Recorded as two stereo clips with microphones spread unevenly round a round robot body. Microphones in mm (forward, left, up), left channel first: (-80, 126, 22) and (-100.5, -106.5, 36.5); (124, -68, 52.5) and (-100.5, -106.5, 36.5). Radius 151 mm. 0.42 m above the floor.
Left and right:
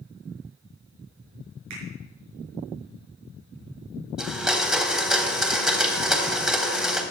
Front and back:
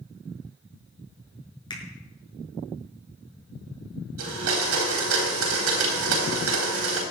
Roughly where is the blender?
Behind.